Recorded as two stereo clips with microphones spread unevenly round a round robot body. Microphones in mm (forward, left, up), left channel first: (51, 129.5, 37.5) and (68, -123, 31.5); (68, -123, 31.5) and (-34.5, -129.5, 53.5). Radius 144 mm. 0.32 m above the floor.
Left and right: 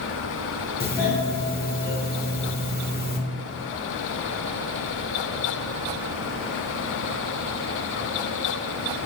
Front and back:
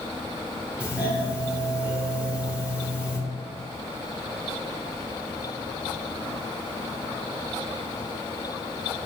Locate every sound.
0.8 s a doorbell: 95° left, 1.9 m